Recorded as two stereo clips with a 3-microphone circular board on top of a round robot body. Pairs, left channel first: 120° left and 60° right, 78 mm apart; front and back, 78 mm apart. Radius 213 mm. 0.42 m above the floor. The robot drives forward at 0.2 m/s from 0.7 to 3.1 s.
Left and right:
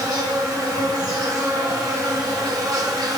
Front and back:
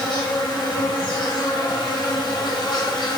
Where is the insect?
15° right, 1.9 m; by 3.2 s 25° right, 1.4 m.